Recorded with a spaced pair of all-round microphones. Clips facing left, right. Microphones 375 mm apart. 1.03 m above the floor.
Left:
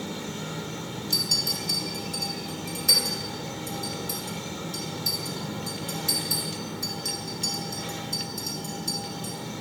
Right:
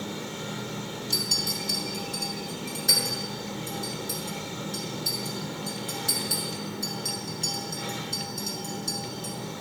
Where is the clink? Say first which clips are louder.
Even; 15° left (ahead or behind), 1.4 m.